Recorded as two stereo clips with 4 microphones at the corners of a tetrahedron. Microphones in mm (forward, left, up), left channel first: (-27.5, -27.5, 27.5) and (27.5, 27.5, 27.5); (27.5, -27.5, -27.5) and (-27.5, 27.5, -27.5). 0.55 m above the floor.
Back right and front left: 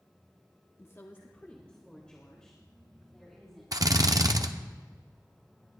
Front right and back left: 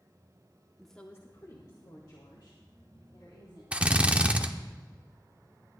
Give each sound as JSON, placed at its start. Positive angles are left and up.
{"t": 0.8, "sound": "a woman speaking", "azimuth_deg": -145, "distance_m": 0.8}
{"t": 3.7, "sound": "a drill", "azimuth_deg": 65, "distance_m": 0.6}